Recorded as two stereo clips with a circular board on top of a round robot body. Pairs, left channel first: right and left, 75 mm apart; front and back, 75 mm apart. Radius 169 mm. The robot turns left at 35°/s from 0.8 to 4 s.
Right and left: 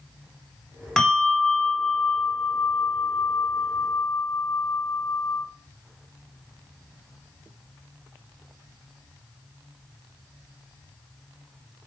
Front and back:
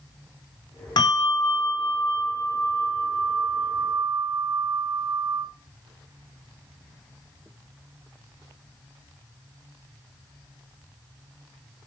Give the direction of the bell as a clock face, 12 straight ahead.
12 o'clock.